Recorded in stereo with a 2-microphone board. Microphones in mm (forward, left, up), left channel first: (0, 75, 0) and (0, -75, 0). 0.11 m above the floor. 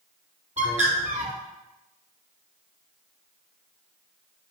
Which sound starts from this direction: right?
A bird, at 0.6 s.